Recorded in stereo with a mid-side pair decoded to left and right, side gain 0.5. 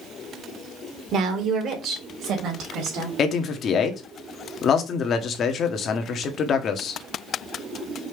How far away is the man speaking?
About 1.1 m.